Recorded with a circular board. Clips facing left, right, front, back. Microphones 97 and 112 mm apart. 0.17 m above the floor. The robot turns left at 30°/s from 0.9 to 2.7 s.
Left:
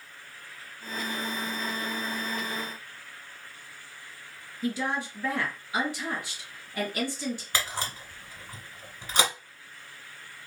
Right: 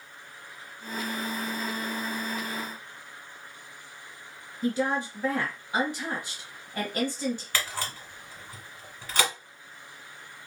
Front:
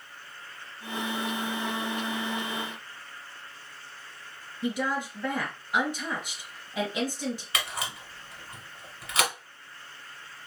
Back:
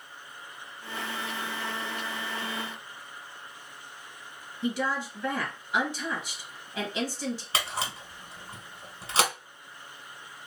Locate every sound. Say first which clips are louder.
4.6 s a woman speaking: right 3 dB, even; 70° right, 1.4 m
7.5 s a camera shutter: left 1 dB, back 2 dB; 145° left, 0.9 m